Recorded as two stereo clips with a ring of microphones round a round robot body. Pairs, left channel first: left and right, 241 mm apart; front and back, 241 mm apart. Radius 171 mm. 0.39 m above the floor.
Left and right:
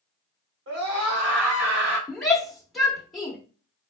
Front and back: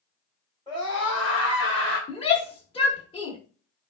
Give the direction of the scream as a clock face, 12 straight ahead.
3 o'clock.